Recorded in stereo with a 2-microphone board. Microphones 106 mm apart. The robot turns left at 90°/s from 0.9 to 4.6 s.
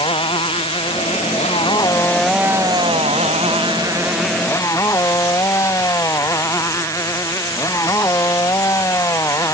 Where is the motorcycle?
125° left; by 9.5 s 150° left.